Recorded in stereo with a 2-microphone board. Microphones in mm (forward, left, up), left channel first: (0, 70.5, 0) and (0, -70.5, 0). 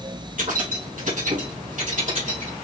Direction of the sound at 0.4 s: 70° right (ahead or behind).